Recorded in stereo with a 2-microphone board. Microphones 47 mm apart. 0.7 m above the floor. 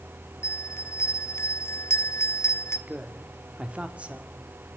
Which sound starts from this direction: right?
A woman speaking, at 2.9 s.